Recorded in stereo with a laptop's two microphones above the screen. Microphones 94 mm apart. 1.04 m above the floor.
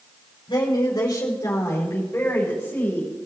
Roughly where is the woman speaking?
Left.